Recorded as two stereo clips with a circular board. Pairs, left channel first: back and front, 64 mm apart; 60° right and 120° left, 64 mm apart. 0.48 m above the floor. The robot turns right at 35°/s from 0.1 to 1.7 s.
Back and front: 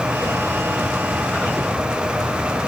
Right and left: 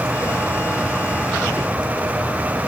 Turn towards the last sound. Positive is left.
No sound to turn to.